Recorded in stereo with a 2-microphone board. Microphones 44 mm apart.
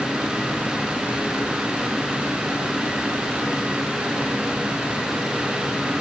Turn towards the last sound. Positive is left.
No sound to turn to.